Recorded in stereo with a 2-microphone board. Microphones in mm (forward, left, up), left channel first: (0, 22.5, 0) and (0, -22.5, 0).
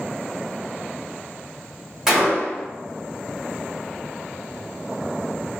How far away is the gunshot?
About 1.1 m.